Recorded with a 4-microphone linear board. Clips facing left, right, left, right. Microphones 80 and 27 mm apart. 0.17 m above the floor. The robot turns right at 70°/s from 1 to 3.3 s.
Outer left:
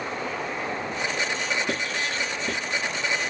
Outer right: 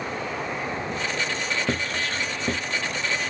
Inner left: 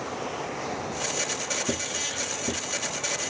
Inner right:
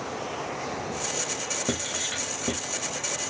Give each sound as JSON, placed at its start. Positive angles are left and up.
{"t": 1.7, "sound": "writing", "side_deg": -40, "distance_m": 0.8}